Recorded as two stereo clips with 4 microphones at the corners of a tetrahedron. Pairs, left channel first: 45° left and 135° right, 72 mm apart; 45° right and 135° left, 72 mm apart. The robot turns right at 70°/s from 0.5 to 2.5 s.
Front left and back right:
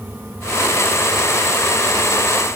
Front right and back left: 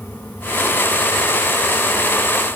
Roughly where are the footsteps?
I don't hear footsteps.